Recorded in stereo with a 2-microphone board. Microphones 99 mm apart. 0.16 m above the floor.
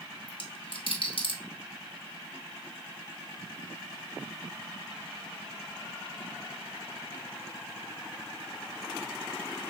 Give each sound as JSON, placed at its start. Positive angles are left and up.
{"t": 0.3, "sound": "a dropped coin", "side_deg": 55, "distance_m": 1.0}